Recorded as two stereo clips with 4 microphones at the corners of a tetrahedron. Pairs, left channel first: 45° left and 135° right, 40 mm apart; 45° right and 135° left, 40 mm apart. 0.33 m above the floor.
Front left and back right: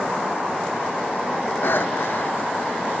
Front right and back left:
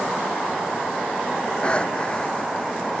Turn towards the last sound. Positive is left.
turn(degrees=20)